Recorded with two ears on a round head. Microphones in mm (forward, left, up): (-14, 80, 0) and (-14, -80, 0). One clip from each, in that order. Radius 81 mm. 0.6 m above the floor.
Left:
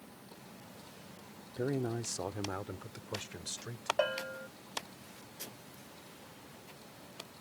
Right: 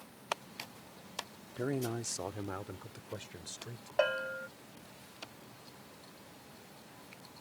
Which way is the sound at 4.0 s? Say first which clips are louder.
Right 5 dB; 25° right (ahead or behind).